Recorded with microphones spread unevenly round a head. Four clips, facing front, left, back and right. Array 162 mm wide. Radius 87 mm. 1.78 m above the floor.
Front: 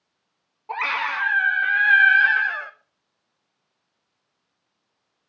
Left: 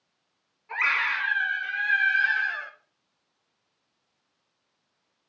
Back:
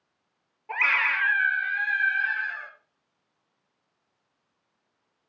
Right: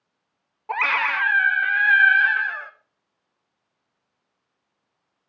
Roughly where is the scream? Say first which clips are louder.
Right 5 dB, front 1 dB; right.